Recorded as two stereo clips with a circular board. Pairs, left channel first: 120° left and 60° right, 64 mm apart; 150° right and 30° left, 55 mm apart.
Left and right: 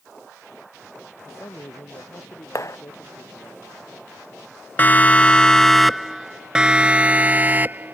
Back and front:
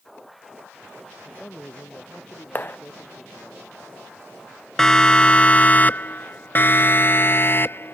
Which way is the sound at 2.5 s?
155° left.